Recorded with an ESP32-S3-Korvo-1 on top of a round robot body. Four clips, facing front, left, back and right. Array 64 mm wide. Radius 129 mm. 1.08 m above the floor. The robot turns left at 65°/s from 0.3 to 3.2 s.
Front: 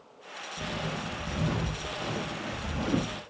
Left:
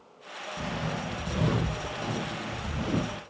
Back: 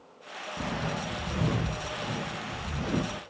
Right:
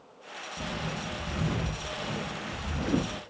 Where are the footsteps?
170° left, 2.0 m; by 3.2 s 95° right, 1.0 m.